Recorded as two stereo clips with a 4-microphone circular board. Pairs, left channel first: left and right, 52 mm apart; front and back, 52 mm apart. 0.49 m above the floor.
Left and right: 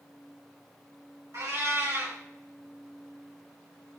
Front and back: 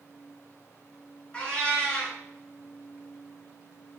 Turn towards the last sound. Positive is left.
turn(degrees=-70)